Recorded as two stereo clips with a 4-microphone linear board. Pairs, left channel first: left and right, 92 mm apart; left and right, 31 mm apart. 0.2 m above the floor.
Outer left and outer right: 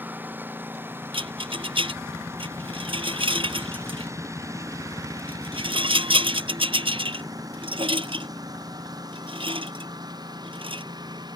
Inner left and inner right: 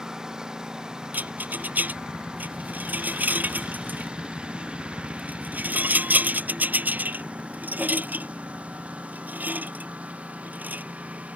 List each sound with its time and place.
0.0 s a lawn mower: 20° right (ahead or behind); by 11.4 s 50° right (ahead or behind)
1.1 s a rattle: 80° right